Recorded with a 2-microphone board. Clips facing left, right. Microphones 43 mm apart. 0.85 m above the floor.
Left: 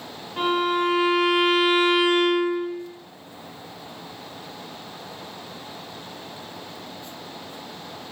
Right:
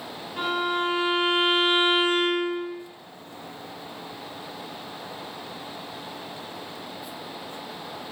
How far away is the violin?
About 1.6 m.